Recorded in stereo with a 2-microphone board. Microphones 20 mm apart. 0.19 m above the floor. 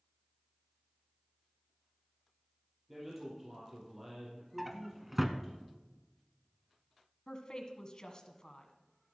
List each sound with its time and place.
2.9 s a man speaking: 10° right (ahead or behind), 5 m
4.6 s a drawer: 5° right (ahead or behind), 0.9 m
7.3 s a woman speaking: 35° left (ahead or behind), 1.5 m